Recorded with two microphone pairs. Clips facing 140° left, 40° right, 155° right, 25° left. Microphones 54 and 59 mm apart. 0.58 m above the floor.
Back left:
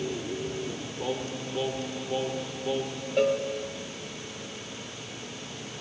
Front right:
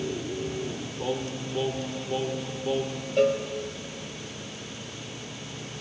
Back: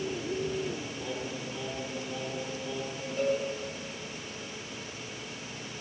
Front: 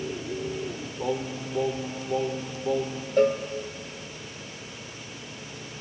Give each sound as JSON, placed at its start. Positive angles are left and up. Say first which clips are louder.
{"t": 1.0, "sound": "singing", "louder": "front right 2 dB, front 6 dB", "azimuth_deg": 45, "distance_m": 1.8}
{"t": 3.2, "sound": "a cowbell", "louder": "front right 2 dB, front 8 dB", "azimuth_deg": 55, "distance_m": 3.0}